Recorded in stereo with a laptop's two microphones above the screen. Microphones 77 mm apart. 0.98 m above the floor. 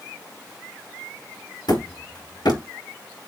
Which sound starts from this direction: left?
Hammering, at 1.7 s.